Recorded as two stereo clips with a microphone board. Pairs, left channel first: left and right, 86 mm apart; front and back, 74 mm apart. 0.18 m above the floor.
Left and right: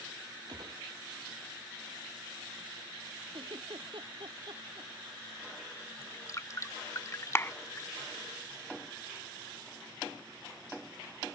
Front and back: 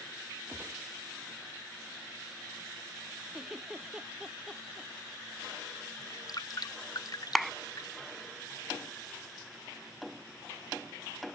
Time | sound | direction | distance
0.5 | a gunshot | 120° right | ?
3.3 | a giggle | 95° right | ?
6.0 | dripping | 35° left | ?
7.3 | a clap | 90° left | ?